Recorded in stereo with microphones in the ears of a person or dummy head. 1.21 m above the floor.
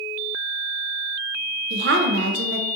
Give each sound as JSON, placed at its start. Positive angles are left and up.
{"t": 1.7, "sound": "a woman speaking", "side_deg": -65, "distance_m": 0.5}